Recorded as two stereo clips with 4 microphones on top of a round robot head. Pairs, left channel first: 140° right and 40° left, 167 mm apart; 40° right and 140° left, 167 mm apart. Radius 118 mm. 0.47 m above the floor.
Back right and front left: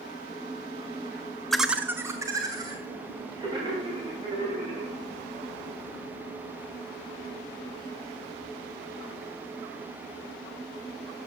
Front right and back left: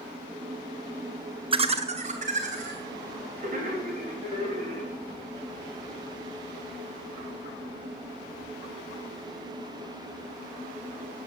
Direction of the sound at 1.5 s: 130° left.